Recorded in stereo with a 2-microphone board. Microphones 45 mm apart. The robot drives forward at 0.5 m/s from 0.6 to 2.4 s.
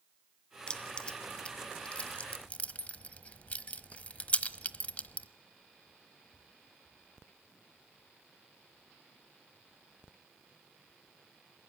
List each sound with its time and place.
0.7 s keys jangling: 20° left (ahead or behind), 2.0 m; by 5.3 s 30° left (ahead or behind), 1.2 m